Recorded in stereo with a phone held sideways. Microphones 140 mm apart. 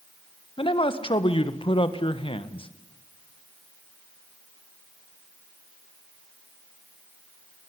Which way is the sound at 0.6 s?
40° left (ahead or behind).